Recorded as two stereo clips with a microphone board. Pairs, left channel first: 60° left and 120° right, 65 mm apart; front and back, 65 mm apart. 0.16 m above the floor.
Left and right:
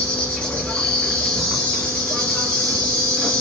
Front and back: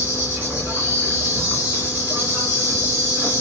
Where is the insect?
135° left, 3 m.